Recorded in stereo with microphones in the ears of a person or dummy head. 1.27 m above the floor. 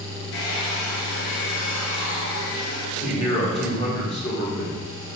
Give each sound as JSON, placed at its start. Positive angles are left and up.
{"t": 0.3, "sound": "a hair dryer", "side_deg": 70, "distance_m": 1.0}
{"t": 3.0, "sound": "a man speaking", "side_deg": 40, "distance_m": 1.2}